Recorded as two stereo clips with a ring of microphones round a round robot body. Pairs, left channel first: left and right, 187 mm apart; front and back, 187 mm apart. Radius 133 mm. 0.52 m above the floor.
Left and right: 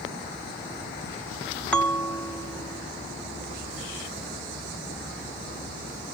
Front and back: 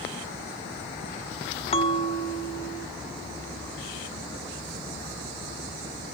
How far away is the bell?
About 0.9 m.